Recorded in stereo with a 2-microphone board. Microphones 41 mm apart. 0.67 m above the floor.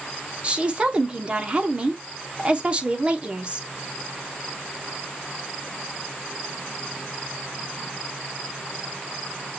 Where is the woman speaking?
30° right (ahead or behind), 1.1 m.